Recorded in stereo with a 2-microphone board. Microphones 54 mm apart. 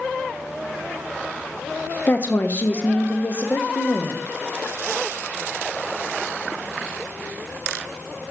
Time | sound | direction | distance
2.1 | a woman speaking | 35° left (ahead or behind) | 0.7 m